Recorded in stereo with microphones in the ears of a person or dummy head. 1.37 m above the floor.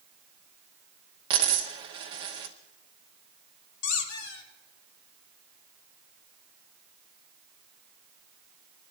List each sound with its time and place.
1.3 s a dropped coin: 20° right (ahead or behind), 1.0 m
3.8 s a squeak: 85° left, 2.5 m